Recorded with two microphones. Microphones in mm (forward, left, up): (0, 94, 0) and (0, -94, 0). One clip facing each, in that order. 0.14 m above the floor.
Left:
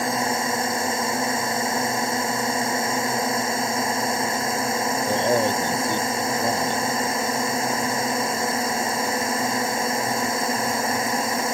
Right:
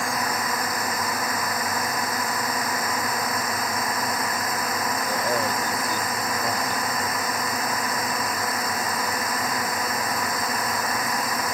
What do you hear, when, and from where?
0.0 s a drone: 25° left (ahead or behind)
5.1 s a man speaking: 25° left (ahead or behind)